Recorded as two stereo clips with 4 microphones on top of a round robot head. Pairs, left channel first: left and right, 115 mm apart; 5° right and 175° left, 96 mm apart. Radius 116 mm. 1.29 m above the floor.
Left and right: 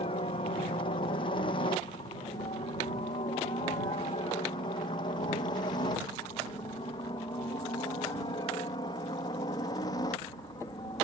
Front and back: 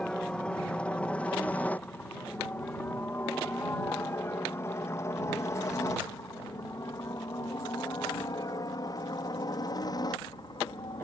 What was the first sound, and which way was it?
A helicopter, 75° left.